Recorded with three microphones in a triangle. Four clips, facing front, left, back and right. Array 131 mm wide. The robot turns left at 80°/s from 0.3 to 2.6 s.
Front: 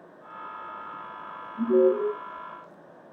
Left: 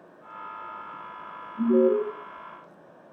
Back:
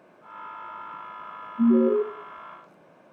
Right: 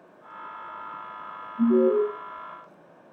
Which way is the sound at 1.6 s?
50° left.